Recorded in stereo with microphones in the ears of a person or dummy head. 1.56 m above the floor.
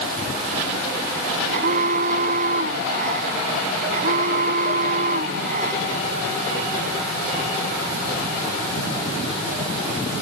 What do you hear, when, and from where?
1.5 s an alarm: 50° right (ahead or behind)